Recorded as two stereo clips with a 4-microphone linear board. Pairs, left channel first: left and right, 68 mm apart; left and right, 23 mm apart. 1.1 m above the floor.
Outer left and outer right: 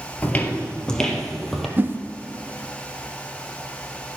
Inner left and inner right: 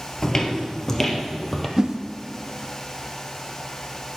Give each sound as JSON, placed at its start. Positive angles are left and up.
{"t": 0.2, "sound": "footsteps", "side_deg": 25, "distance_m": 1.4}
{"t": 1.8, "sound": "a whoosh", "side_deg": -30, "distance_m": 0.8}